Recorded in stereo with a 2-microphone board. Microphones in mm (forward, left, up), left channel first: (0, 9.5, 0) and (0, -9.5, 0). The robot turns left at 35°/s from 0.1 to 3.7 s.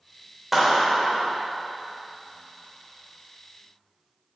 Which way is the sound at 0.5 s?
5° right (ahead or behind).